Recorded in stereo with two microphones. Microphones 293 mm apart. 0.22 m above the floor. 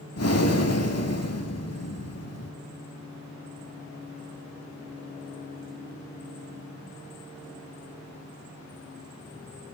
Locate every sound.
0.2 s breathing: 55° left (ahead or behind), 0.6 m